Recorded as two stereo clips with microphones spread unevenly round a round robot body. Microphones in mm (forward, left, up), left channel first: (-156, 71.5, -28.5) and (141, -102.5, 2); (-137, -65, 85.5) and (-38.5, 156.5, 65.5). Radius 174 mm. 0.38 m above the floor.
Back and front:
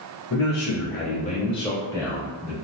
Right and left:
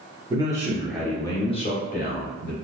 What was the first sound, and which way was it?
A man speaking, 125° left.